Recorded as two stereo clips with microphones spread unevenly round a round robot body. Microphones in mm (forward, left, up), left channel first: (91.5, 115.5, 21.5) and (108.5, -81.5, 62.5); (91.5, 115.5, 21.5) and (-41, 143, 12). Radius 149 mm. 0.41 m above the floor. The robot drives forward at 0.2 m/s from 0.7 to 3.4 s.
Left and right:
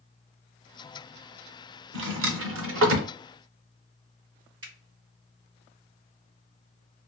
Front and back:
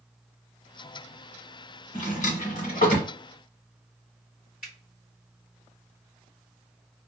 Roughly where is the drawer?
Ahead right.